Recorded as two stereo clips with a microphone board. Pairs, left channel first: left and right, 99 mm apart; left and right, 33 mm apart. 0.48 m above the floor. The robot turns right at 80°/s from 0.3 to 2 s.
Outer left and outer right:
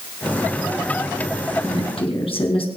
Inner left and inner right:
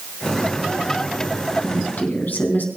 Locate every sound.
1.6 s a woman speaking: 40° left (ahead or behind), 4 m; by 2.7 s 65° left (ahead or behind), 4 m